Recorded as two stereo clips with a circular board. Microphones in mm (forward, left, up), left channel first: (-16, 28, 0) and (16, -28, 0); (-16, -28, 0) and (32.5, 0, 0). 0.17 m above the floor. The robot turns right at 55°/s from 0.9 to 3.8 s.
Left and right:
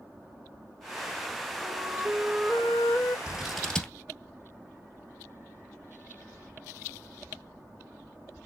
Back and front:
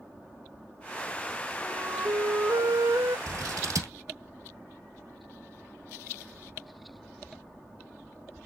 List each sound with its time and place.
1.6 s a flute: 25° right, 3 m; by 3.2 s 60° left, 3 m
3.3 s scissors: 15° left, 1.6 m; by 3.9 s 45° left, 1.6 m